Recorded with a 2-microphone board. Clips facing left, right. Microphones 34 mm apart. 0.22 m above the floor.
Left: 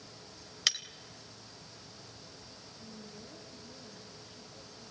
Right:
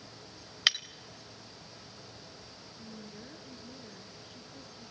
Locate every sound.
0.7 s breaking glass: 25° right (ahead or behind), 0.6 m
2.7 s a woman speaking: 60° right (ahead or behind), 3.5 m